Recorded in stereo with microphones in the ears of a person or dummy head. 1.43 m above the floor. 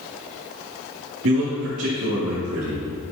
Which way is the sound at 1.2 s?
80° right.